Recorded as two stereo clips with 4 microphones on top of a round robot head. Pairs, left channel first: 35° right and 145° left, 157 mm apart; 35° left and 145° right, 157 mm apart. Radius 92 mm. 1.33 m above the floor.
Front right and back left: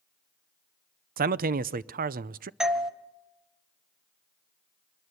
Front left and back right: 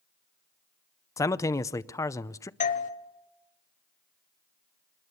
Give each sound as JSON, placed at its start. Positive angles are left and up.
{"t": 1.2, "sound": "a man speaking", "azimuth_deg": 110, "distance_m": 0.6}
{"t": 2.6, "sound": "a doorbell", "azimuth_deg": 60, "distance_m": 1.2}